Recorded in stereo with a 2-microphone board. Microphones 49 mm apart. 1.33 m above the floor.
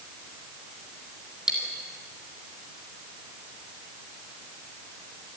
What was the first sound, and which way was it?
Cutlery clinking, 15° right (ahead or behind).